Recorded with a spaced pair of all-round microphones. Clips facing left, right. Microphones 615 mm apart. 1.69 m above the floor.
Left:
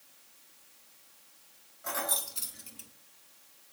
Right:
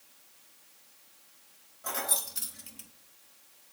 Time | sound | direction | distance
1.8 | keys jangling | 55° right (ahead or behind) | 1.7 m